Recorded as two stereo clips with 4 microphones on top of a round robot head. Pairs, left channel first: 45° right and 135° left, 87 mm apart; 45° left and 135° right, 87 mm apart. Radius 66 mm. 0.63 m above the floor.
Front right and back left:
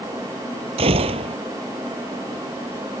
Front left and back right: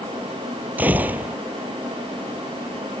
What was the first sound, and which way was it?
A gunshot, 150° left.